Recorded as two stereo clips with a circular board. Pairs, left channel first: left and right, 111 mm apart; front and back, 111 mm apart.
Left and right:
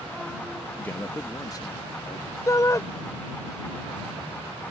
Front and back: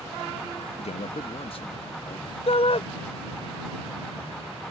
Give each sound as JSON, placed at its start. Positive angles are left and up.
{"t": 0.8, "sound": "a man speaking", "azimuth_deg": 10}
{"t": 2.5, "sound": "a shout", "azimuth_deg": 30}